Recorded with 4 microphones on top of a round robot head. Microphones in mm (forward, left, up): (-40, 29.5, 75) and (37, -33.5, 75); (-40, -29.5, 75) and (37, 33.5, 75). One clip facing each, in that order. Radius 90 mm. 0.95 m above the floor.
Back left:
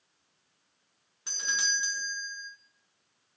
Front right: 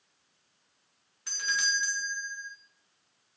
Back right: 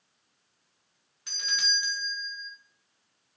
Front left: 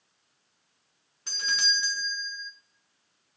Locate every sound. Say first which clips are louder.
1.3 s a doorbell: front right 2 dB, front left 3 dB; 80° left, 2.5 m